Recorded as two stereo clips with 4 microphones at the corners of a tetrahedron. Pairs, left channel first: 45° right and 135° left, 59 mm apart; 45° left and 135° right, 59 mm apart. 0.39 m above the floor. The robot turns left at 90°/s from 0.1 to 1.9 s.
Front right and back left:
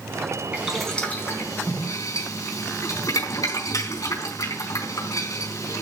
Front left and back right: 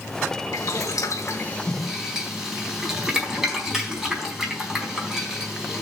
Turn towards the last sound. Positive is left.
turn(degrees=-55)